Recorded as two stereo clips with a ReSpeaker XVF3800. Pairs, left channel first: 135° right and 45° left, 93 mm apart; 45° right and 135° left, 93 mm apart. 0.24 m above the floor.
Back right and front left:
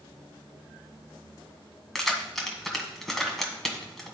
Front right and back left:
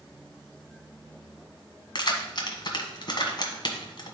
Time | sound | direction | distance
1.9 | keys jangling | 45° right | 1.3 m